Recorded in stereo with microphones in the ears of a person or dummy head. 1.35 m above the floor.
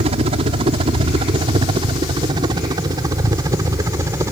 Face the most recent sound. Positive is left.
turn(degrees=-20)  # may be behind; listen again after turning